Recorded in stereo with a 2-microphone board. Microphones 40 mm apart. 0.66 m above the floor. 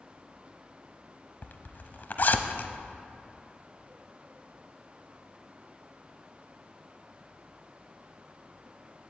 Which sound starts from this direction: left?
A zipper, at 1.4 s.